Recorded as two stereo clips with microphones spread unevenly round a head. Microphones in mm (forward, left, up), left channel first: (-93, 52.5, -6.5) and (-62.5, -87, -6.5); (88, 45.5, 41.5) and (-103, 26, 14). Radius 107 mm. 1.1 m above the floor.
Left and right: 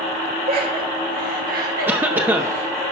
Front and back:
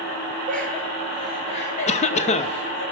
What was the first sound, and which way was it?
Laughter, 85° right.